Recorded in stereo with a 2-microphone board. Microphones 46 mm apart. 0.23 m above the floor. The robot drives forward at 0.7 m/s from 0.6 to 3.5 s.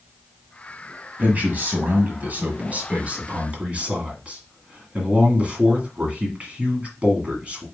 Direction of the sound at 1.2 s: 35° right (ahead or behind).